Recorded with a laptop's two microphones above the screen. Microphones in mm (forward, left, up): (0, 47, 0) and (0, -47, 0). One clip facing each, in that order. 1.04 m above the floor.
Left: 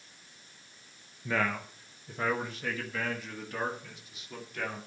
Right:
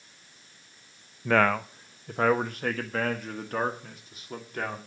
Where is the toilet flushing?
I don't hear a toilet flushing.